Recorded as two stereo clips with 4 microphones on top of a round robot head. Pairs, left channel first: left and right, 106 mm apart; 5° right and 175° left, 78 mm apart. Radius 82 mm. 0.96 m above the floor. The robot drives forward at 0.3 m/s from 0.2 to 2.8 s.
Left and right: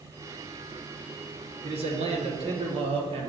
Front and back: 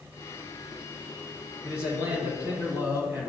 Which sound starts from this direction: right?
A man speaking, at 1.6 s.